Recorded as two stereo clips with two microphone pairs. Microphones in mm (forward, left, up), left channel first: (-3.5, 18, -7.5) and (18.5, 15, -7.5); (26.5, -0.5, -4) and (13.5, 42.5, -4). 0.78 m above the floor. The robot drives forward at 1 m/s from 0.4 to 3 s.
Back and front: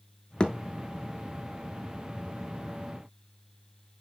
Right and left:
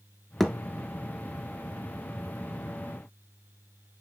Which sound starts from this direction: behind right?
A thud, at 0.4 s.